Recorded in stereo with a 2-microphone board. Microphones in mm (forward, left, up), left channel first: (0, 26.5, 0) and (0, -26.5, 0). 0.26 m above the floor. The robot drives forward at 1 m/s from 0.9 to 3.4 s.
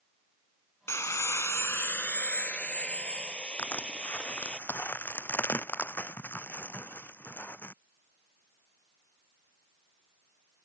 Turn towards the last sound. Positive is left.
turn(degrees=40)  # may be behind; listen again after turning